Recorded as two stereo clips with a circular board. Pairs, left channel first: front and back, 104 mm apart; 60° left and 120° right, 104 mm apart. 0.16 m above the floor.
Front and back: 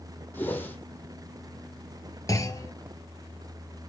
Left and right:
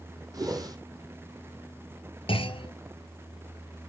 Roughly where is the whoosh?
Right.